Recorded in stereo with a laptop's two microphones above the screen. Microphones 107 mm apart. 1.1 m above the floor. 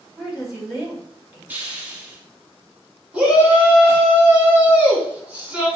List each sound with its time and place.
0.2 s a woman speaking: centre (ahead or behind), 2.5 m
1.5 s a hiss: 15° right (ahead or behind), 0.9 m
3.1 s a shout: 10° right (ahead or behind), 1.7 m